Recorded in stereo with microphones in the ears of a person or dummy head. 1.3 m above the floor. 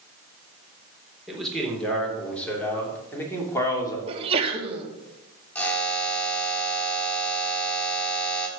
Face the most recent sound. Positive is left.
turn(degrees=10)  # may be behind; listen again after turning